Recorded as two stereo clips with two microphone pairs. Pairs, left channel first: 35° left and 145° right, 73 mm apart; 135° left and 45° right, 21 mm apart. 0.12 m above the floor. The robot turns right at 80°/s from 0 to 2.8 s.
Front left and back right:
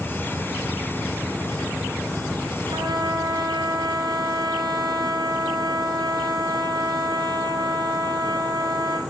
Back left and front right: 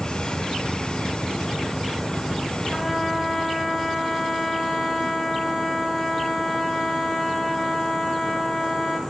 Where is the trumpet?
145° right, 7.5 m; by 9.0 s 135° right, 7.5 m.